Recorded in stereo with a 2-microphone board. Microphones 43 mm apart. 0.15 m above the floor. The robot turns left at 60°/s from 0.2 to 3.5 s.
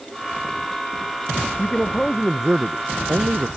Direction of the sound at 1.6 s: 35° left.